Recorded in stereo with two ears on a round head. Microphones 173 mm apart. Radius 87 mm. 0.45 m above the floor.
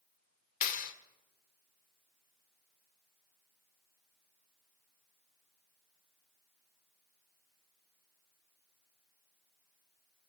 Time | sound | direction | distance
0.6 | a clap | 45° left (ahead or behind) | 1.1 m